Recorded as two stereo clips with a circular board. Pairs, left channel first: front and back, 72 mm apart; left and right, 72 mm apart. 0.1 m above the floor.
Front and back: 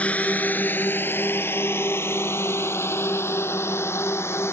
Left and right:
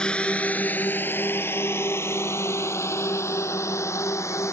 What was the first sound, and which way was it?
A drone, 30° left.